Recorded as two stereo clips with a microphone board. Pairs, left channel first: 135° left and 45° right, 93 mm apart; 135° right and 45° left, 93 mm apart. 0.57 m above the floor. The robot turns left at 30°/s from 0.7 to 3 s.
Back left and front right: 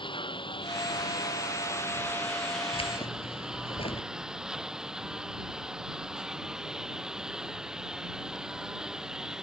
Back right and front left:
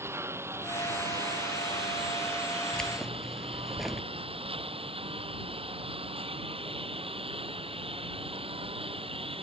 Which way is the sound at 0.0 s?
110° left.